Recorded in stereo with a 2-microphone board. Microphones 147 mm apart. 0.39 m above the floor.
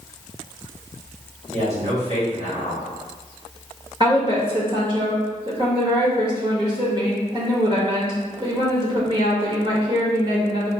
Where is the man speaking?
45° right (ahead or behind), 1.8 m.